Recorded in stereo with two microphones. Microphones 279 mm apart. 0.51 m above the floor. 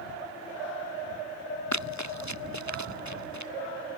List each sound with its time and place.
1.7 s running footsteps: 75° left (ahead or behind); by 3.5 s 80° left